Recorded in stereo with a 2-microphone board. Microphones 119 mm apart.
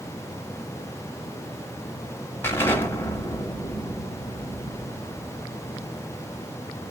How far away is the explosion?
About 1.2 m.